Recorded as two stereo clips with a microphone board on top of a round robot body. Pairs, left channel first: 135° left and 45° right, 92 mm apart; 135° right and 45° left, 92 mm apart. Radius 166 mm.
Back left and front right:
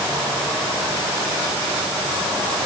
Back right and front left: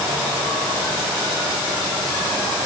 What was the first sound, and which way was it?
Only background noise.